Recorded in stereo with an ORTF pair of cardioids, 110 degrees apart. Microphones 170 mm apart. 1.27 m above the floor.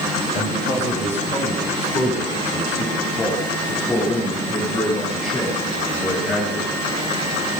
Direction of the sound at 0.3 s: 40° left.